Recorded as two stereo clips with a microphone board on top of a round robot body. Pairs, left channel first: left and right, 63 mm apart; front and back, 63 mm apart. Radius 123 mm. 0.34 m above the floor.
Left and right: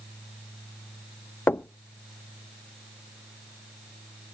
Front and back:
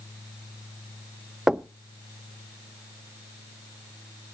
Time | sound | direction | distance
1.5 | knocking | 105° left | 0.6 m